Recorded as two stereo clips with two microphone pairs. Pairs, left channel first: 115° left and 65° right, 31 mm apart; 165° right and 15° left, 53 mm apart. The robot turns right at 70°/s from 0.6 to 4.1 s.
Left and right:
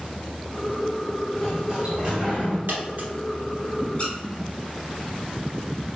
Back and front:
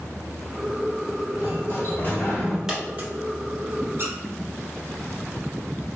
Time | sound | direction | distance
1.4 | a sliding door | 170° right | 1.6 m
2.7 | a dropped coin | 65° right | 1.1 m
4.0 | a squeak | 55° left | 1.0 m